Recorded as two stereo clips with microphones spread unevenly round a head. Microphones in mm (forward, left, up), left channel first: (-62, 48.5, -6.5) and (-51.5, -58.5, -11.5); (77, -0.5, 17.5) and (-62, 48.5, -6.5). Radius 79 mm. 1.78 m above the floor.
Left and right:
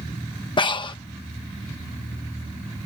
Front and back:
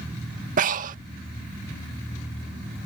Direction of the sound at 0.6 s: 125° left.